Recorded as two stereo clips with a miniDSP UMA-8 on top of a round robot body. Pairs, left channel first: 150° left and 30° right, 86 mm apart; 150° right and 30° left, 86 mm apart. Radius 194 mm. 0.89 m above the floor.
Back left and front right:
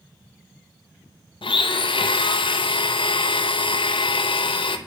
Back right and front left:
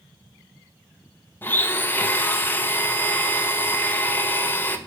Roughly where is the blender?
Behind left.